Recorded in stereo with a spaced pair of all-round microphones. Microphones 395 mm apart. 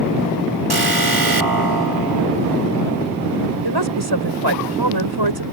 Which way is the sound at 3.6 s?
85° right.